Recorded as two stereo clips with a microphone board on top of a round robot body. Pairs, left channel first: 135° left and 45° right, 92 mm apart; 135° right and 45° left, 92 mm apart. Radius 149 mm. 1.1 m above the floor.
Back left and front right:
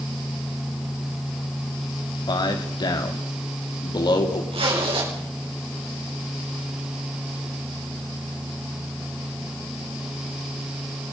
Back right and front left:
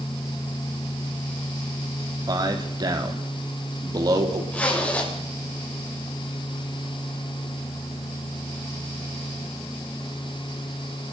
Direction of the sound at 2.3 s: 95° left.